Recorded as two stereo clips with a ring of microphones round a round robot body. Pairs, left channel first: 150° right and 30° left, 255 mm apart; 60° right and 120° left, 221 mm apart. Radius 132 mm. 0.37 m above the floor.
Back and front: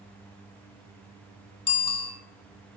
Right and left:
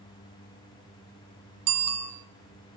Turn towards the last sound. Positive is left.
turn(degrees=140)